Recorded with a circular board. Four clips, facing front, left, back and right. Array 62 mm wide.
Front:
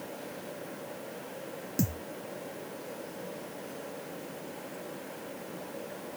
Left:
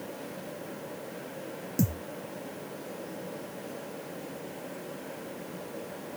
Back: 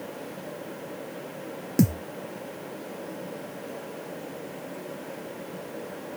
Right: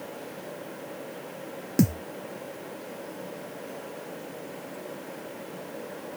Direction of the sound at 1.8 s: 125° right.